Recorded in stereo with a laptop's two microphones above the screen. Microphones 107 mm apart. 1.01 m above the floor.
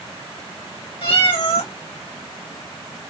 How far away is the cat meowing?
About 1.6 m.